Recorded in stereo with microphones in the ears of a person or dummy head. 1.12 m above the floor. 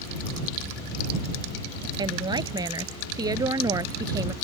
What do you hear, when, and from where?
2.0 s a woman speaking: 25° right (ahead or behind); by 4.3 s 20° right (ahead or behind)